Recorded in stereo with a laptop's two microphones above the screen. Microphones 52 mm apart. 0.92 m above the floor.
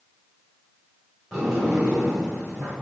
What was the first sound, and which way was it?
A sliding door, 5° right (ahead or behind).